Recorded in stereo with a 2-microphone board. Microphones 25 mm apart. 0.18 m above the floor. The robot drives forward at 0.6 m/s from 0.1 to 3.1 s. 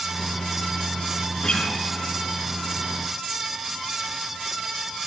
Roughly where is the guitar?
Left.